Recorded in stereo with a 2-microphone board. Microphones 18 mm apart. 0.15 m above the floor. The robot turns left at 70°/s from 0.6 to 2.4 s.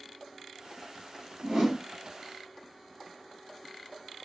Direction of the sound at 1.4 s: 60° right (ahead or behind).